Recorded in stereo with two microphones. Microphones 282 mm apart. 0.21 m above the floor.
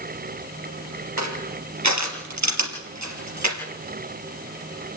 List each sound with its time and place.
1.2 s crushing: 75° right (ahead or behind), 3 m